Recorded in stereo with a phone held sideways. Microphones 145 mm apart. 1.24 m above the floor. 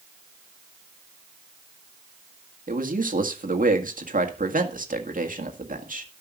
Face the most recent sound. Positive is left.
turn(degrees=-75)  # may be behind; listen again after turning